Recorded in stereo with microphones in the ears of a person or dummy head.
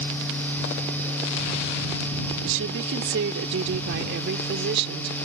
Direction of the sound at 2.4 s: 75° right (ahead or behind).